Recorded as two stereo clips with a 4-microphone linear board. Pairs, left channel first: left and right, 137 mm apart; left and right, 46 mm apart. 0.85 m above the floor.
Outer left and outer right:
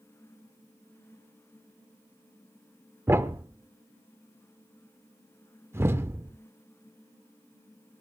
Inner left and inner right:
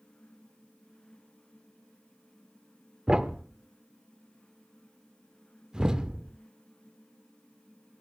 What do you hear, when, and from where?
3.1 s a thud: 15° right (ahead or behind), 0.6 m